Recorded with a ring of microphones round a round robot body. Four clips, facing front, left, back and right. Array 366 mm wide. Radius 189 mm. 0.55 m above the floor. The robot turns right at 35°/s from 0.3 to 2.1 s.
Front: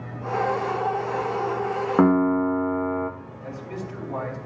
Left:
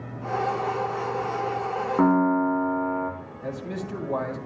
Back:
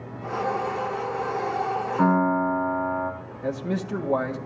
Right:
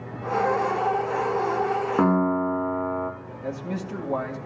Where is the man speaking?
Straight behind, 2 m.